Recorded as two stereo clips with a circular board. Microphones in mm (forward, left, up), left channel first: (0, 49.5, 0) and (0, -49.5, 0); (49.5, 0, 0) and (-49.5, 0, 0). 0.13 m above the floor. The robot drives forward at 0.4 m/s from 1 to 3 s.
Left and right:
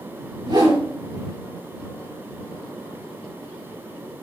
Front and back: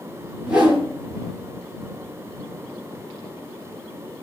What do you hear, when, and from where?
0.5 s a whoosh: 100° right, 2.5 m